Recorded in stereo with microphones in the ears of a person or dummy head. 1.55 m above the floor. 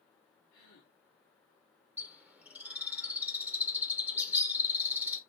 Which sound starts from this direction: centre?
A bird, at 2.0 s.